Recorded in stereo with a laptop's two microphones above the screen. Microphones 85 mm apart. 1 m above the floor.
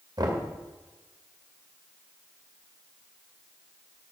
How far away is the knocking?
About 2 m.